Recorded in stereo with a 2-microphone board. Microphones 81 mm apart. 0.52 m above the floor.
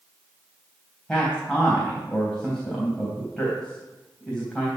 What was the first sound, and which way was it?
A man speaking, 10° left (ahead or behind).